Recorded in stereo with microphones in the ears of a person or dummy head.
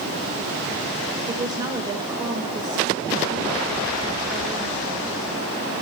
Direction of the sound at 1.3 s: 25° right (ahead or behind).